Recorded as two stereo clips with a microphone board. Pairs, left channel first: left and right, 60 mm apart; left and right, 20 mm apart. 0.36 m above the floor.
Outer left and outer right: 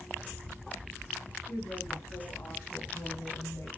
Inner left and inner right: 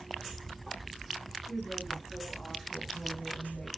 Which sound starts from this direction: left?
A woman speaking, at 1.5 s.